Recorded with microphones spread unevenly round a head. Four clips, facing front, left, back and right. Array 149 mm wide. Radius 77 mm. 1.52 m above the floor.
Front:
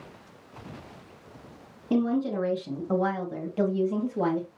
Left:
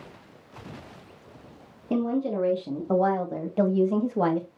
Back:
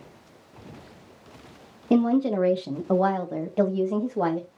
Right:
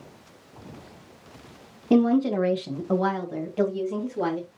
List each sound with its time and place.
1.9 s a woman speaking: 175° right, 2 m; by 4.5 s 130° left, 2 m